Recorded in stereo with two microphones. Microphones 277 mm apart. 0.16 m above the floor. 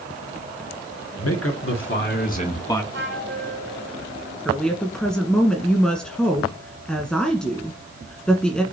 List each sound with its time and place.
1.2 s a man speaking: 60° left (ahead or behind), 3 m; by 2.8 s 10° left (ahead or behind), 1.8 m
2.9 s a flute: 45° right (ahead or behind), 2.5 m
4.5 s a woman speaking: 5° left (ahead or behind), 1.5 m